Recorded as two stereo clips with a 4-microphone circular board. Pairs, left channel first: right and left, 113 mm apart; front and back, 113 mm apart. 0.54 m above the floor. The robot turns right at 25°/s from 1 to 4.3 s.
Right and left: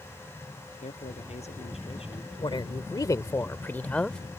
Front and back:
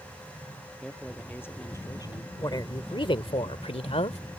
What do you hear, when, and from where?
0.8 s a man speaking: 80° right; by 2.3 s 50° right
2.4 s a woman speaking: 50° right; by 4.2 s 5° right